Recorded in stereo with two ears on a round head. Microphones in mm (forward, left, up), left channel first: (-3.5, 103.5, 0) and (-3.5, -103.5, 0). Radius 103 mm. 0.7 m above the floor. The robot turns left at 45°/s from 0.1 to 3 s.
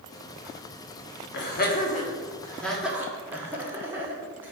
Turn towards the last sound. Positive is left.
turn(degrees=-10)  # may be behind; listen again after turning